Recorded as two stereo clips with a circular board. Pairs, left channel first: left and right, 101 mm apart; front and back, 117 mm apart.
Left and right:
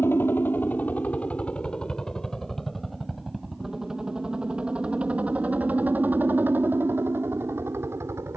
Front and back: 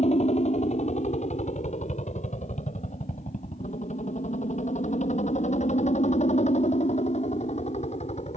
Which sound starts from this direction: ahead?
A helicopter, at 0.0 s.